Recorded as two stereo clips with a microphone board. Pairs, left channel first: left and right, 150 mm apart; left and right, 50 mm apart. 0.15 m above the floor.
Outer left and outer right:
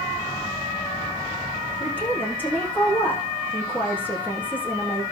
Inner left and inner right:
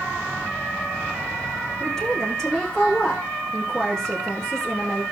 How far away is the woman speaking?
About 8 m.